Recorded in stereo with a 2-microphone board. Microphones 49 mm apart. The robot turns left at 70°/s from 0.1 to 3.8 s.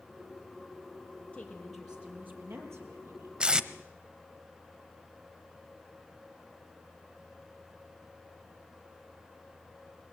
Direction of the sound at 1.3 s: 25° left.